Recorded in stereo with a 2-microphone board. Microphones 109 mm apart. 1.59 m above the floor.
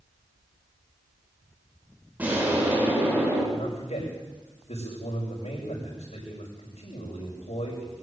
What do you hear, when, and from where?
2.2 s an explosion: 15° right (ahead or behind), 8 m
3.5 s a man speaking: 85° left, 7 m